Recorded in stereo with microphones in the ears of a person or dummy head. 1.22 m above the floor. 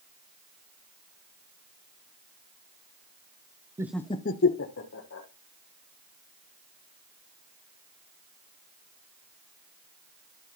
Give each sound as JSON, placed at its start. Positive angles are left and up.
{"t": 3.8, "sound": "laughter", "side_deg": -20, "distance_m": 0.5}